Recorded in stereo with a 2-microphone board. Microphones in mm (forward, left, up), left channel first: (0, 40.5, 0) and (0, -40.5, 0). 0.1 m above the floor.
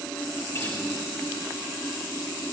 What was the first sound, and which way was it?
A guitar, 30° left (ahead or behind).